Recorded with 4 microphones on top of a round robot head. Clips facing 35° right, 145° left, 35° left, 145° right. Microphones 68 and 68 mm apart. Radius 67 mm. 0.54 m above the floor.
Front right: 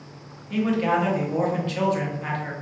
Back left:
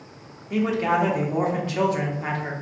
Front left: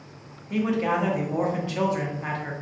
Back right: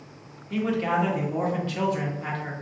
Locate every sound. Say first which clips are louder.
0.5 s a man speaking: even, front left 1 dB; 90° left, 1.0 m